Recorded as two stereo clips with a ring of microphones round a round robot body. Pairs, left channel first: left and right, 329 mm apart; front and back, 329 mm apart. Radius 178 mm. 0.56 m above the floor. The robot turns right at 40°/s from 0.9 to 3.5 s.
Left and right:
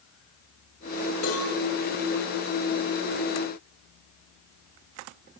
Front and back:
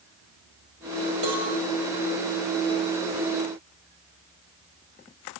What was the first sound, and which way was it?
A cowbell, 140° left.